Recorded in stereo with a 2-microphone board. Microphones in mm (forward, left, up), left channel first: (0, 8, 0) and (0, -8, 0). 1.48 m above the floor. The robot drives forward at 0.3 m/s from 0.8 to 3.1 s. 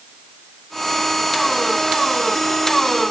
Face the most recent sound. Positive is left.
No sound to turn to.